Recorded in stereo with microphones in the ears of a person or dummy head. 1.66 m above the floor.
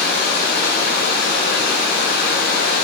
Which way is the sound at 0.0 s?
55° left (ahead or behind).